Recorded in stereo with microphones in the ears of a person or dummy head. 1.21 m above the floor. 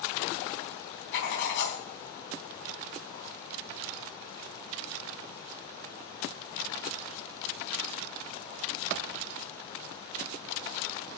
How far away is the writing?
About 3 m.